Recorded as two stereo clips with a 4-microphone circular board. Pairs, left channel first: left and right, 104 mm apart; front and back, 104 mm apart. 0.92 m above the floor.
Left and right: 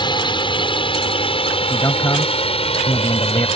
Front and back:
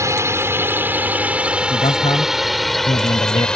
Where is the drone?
120° left; by 3.6 s 80° left.